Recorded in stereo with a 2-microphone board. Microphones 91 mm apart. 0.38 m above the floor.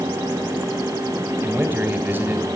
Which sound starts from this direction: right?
A man speaking, at 1.4 s.